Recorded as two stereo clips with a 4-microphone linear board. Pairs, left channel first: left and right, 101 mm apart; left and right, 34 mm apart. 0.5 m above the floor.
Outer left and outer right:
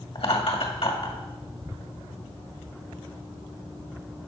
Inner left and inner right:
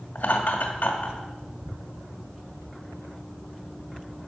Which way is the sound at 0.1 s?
65° left (ahead or behind).